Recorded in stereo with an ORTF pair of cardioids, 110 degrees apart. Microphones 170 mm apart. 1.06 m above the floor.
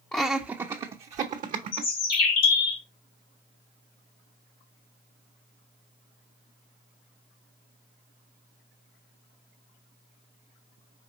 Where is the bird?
60° left, 1.2 m.